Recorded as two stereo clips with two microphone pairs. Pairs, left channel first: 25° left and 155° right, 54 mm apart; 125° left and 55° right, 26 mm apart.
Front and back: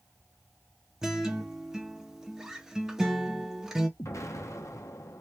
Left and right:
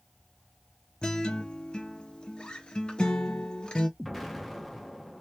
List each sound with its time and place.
1.0 s a guitar: 130° left, 0.6 m
4.0 s an explosion: 35° left, 0.7 m